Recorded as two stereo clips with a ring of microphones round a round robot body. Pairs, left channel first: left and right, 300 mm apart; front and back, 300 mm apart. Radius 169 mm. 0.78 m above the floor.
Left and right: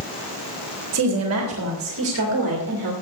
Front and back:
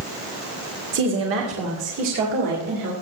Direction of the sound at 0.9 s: 125° right.